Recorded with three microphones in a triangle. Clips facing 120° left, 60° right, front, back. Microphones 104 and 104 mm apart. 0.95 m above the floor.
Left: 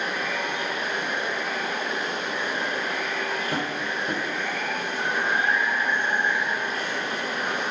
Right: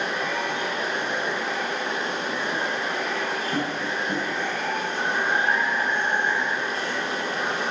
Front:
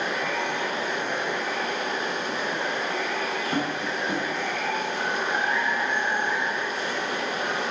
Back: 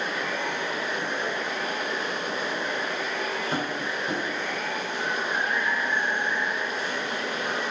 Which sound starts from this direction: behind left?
Tapping, at 3.5 s.